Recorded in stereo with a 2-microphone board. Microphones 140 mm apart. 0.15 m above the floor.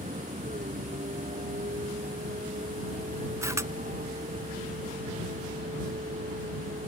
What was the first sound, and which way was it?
A vehicle, 60° right (ahead or behind).